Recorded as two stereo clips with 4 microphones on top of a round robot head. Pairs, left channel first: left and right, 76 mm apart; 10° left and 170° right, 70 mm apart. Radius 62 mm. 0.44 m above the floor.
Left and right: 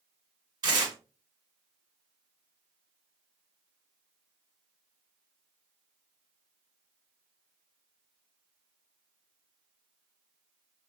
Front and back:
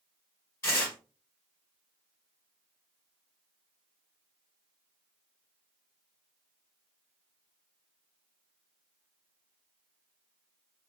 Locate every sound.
0.6 s tearing paper: 55° right, 1.8 m